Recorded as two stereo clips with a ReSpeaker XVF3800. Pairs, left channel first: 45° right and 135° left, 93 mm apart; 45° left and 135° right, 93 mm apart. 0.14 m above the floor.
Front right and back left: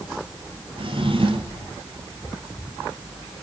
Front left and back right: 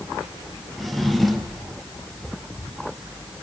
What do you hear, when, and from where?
0.8 s a drawer: 135° left, 1.7 m